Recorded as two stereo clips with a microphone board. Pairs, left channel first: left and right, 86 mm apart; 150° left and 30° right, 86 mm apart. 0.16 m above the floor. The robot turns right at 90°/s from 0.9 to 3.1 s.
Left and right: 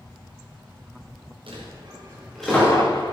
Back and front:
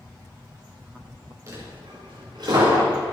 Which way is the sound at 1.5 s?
85° right.